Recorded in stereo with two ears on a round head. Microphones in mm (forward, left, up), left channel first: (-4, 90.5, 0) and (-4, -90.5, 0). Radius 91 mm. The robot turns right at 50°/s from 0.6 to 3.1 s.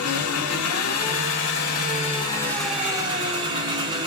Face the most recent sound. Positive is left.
turn(degrees=-160)